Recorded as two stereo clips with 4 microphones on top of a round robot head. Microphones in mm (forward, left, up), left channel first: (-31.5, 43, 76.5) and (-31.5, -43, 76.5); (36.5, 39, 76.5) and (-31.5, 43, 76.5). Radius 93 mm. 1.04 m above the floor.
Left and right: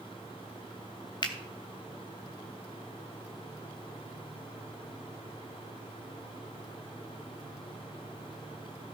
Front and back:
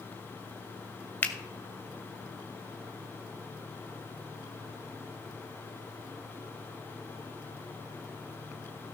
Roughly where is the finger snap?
Ahead left.